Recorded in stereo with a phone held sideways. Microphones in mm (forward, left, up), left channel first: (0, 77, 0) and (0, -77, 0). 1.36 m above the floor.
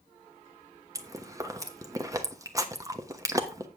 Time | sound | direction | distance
0.9 | chewing | 20° right (ahead or behind) | 1.0 m